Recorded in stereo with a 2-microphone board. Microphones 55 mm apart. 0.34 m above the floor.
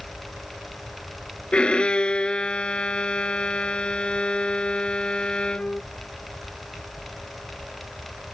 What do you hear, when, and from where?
1.5 s a violin: 20° left (ahead or behind)